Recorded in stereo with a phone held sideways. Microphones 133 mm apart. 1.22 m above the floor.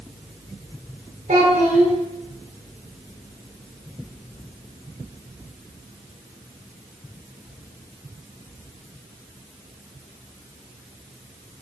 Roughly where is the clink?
No clink in this recording.